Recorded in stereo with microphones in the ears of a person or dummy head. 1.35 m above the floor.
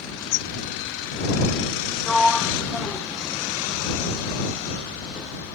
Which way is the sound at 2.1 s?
5° right (ahead or behind).